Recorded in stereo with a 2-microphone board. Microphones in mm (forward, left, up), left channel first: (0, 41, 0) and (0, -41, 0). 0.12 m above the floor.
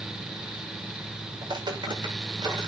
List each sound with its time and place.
1.4 s footsteps: 60° right (ahead or behind), 9.5 m